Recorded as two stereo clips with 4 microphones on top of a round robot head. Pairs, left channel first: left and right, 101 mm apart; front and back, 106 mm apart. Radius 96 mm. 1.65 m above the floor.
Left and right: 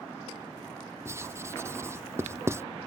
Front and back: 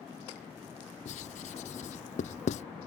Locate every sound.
1.1 s writing: 25° right